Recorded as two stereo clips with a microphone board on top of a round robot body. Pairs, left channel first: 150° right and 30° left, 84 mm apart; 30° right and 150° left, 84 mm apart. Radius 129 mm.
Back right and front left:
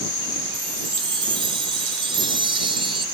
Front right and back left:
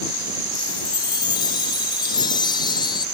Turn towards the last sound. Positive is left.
turn(degrees=5)